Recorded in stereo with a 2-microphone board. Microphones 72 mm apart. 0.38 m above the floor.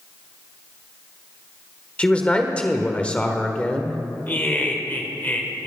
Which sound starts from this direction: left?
Laughter, at 4.3 s.